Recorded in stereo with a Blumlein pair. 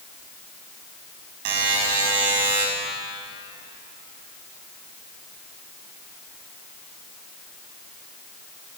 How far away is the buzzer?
About 5.5 m.